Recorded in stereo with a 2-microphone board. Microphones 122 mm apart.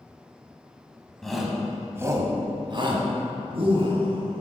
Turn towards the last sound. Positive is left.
turn(degrees=-50)  # may be behind; listen again after turning